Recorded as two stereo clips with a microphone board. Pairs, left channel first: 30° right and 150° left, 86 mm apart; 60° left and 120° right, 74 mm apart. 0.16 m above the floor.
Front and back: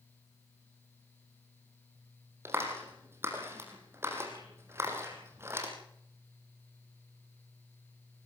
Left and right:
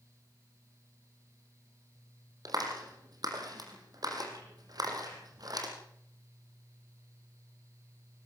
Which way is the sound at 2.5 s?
150° right.